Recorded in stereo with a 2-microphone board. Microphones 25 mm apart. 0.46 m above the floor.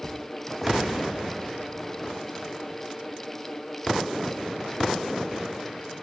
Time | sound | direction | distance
0.6 | a gunshot | 5° left (ahead or behind) | 10 m